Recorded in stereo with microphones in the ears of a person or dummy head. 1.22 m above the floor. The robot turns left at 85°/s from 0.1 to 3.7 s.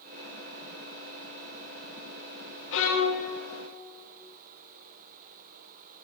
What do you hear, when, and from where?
2.7 s a violin: 95° left, 1.5 m; by 3.3 s 45° left, 1.5 m